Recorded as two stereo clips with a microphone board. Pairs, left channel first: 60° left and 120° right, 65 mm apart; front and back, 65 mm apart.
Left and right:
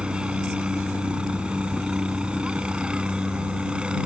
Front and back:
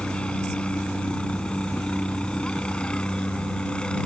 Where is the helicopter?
60° right.